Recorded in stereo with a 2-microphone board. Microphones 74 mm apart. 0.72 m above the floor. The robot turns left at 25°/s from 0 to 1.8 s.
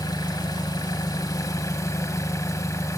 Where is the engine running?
100° left, 1.0 m; by 3.0 s 55° left, 1.0 m.